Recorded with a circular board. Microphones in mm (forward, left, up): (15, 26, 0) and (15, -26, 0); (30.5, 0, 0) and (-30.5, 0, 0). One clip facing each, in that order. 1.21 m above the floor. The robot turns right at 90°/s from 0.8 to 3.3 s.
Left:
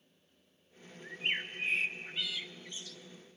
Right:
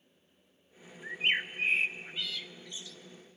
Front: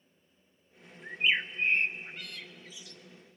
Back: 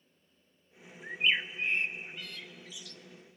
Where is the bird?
105° right, 0.8 m; by 3.0 s 70° left, 0.8 m.